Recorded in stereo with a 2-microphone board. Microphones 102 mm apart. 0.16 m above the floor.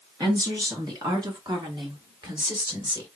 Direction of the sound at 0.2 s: 35° right (ahead or behind).